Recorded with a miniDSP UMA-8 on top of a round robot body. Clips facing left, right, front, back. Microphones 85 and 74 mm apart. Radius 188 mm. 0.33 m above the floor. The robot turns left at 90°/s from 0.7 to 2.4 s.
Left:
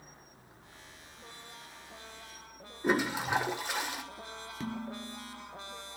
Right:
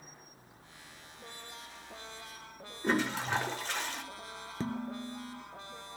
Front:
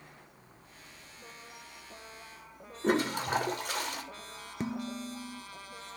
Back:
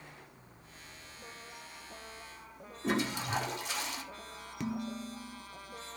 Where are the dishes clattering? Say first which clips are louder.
Right 2 dB, front 1 dB; 45° right, 0.9 m.